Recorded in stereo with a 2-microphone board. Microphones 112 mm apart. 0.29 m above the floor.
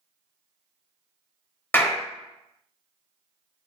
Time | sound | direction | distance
1.7 | a clap | 20° left (ahead or behind) | 0.7 m